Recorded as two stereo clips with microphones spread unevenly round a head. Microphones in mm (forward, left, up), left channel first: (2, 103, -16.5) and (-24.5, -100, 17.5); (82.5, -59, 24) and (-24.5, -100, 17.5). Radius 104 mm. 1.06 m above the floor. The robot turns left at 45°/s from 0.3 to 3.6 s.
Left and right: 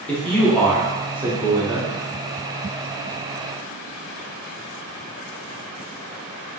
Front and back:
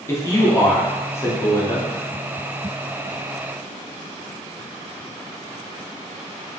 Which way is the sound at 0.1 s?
40° left.